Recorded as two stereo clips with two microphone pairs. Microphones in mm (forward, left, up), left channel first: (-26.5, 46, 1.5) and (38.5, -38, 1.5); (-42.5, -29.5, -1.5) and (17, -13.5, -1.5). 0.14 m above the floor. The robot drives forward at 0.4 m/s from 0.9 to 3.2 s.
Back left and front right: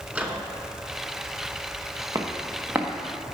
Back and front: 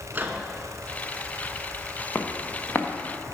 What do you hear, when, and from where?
0.1 s a microwave: 10° left, 1.1 m
2.1 s footsteps: 110° right, 1.4 m; by 2.9 s 120° right, 1.5 m